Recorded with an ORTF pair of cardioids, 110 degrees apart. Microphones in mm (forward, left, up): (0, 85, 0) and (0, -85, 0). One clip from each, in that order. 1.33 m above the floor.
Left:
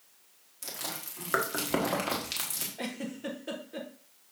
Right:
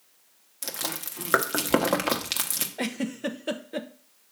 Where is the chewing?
40° right, 1.2 m.